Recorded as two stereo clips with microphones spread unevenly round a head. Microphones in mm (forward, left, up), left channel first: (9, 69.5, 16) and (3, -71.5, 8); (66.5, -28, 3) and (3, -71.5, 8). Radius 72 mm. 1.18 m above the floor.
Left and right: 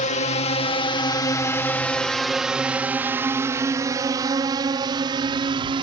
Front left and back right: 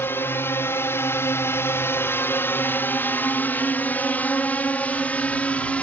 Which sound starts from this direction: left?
A drone, at 0.0 s.